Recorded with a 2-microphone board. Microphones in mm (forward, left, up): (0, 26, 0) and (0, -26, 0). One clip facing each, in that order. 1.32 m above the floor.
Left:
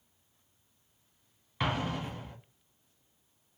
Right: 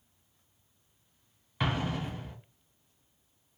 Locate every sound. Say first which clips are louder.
1.6 s an explosion: even; centre (ahead or behind), 1.0 m